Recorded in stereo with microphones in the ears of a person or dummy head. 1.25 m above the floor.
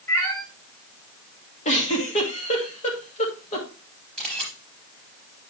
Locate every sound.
0.1 s a cat meowing: 15° left (ahead or behind), 1.2 m
1.6 s a giggle: 35° left (ahead or behind), 2 m
4.2 s a camera shutter: 5° left (ahead or behind), 4.5 m